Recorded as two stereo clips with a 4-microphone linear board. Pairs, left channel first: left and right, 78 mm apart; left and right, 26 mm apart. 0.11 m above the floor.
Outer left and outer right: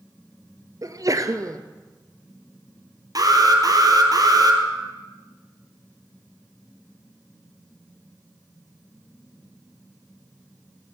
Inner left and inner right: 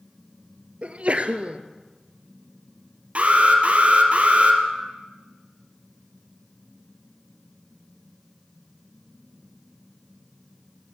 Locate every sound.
0.8 s a sneeze: 50° right (ahead or behind), 1.9 m
3.1 s an alarm: 50° right (ahead or behind), 3.5 m